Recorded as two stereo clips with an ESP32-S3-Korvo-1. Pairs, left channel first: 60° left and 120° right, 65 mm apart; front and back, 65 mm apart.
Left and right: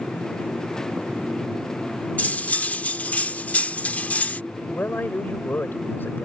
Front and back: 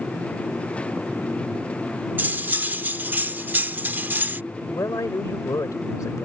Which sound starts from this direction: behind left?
Cutlery clinking, at 2.2 s.